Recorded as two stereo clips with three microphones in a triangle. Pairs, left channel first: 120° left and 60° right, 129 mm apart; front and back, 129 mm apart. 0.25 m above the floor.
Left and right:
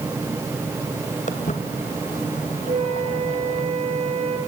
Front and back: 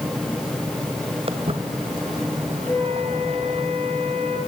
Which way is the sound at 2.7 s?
70° right.